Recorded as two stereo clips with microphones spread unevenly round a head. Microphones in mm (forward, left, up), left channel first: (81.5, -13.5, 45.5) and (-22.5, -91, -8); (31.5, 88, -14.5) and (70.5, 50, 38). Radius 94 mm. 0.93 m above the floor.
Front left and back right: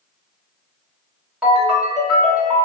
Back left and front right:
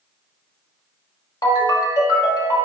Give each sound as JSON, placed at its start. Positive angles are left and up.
{"t": 1.4, "sound": "a ringtone", "azimuth_deg": 130, "distance_m": 1.0}